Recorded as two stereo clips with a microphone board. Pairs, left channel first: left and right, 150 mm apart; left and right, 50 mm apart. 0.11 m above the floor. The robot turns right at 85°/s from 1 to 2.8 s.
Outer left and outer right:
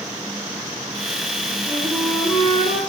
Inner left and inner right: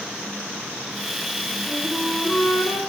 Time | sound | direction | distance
1.7 | a flute | 35° right | 1.8 m